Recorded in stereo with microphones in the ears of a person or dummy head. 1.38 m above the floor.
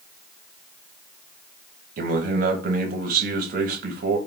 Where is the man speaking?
60° right (ahead or behind), 0.7 m.